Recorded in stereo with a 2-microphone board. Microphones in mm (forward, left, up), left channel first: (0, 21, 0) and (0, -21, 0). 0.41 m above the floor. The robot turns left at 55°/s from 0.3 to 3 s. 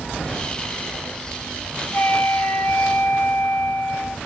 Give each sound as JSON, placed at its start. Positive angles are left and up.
{"t": 1.9, "sound": "a flute", "azimuth_deg": 115, "distance_m": 2.0}